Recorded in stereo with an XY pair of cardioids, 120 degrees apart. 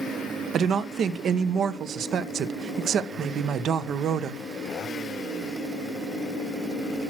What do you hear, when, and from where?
0.5 s a woman speaking: 55° right, 1.0 m